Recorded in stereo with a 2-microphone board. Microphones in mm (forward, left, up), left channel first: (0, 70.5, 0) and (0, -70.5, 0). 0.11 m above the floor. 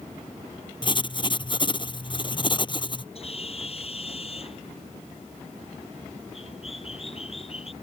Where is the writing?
35° left (ahead or behind).